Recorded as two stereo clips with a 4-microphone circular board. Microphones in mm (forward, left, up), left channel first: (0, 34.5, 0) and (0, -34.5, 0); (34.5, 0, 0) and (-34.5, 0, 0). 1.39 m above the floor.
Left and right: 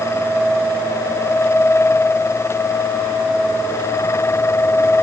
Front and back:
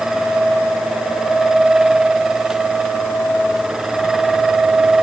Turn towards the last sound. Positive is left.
No sound to turn to.